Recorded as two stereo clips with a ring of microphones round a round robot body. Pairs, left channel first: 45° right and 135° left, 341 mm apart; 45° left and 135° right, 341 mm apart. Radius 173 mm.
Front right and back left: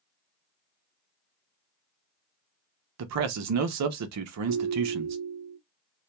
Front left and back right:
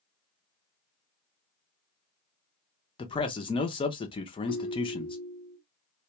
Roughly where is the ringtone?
Left.